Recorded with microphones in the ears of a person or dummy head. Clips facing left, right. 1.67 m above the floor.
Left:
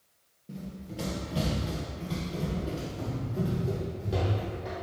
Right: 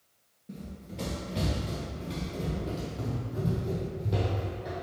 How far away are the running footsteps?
About 2.0 m.